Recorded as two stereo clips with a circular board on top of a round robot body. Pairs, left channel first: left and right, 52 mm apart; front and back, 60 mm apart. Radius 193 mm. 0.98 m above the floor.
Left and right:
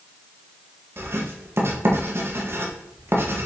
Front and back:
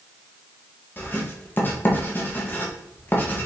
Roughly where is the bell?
I don't hear a bell.